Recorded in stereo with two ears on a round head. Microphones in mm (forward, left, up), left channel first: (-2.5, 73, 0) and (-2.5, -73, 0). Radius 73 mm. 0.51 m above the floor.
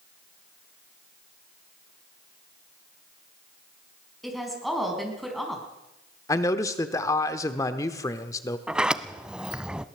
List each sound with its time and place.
4.2 s a woman speaking: centre (ahead or behind), 4.5 m
6.3 s a man speaking: 20° left (ahead or behind), 1.0 m
8.7 s a sliding door: 5° right (ahead or behind), 0.7 m